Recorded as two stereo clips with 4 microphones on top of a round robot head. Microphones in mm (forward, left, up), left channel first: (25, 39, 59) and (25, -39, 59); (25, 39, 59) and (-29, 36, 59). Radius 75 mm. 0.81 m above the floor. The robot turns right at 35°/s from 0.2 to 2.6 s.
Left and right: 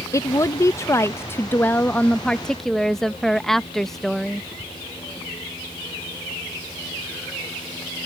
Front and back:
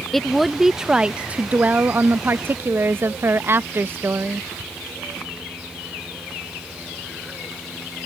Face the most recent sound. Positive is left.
turn(degrees=170)